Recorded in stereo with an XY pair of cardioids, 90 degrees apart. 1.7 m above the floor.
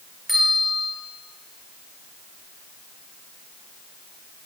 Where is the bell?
20° left, 4 m.